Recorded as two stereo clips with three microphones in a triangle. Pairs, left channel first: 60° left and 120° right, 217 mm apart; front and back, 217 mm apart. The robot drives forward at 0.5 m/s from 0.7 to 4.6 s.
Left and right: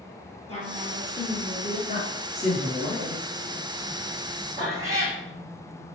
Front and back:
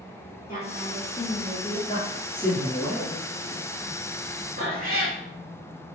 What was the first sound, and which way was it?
A woman speaking, 20° left.